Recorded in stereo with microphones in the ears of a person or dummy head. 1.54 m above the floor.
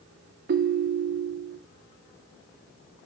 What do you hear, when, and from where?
0.5 s a ringtone: 50° right (ahead or behind), 0.9 m